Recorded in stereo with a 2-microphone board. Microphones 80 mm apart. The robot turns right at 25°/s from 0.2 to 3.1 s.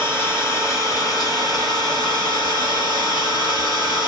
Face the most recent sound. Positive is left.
turn(degrees=100)